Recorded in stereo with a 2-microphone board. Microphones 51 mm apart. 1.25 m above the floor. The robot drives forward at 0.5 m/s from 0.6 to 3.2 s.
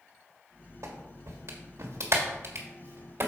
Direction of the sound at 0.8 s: 75° right (ahead or behind).